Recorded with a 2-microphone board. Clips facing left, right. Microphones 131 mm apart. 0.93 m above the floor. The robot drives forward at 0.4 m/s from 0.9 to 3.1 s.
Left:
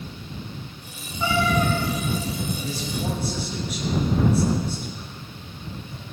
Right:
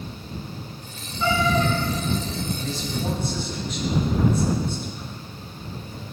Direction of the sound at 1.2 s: 20° left (ahead or behind).